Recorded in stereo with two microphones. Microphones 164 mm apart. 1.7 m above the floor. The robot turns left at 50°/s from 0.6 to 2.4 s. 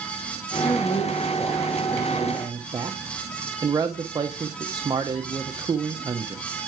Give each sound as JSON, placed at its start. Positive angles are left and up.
{"t": 0.6, "sound": "a man speaking", "azimuth_deg": 55, "distance_m": 0.9}